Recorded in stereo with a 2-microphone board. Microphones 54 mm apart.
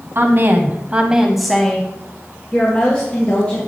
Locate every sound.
0.1 s a woman speaking: 45° right (ahead or behind), 1.4 m; by 3.7 s 30° left (ahead or behind), 3.5 m